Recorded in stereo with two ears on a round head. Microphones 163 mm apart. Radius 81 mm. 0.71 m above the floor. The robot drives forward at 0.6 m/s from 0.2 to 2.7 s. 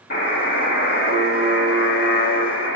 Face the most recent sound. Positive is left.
turn(degrees=85)